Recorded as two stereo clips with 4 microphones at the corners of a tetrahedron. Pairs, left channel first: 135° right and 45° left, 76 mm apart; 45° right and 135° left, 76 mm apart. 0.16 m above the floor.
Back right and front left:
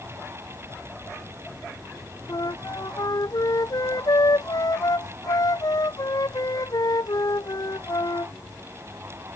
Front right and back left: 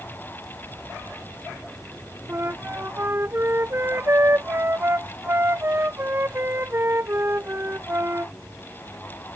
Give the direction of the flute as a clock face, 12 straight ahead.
6 o'clock.